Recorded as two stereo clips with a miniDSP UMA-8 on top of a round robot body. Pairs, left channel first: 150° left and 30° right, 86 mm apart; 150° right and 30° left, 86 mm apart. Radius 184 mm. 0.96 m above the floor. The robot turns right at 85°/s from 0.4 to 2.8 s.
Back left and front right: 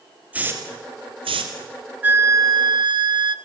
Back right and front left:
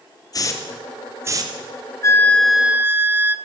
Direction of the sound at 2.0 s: 100° right.